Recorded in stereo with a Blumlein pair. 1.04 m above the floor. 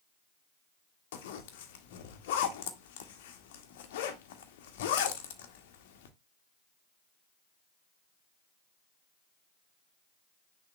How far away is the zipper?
About 1.3 m.